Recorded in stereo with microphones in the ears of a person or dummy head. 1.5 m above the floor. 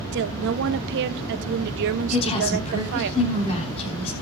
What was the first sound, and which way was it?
A woman speaking, 60° right (ahead or behind).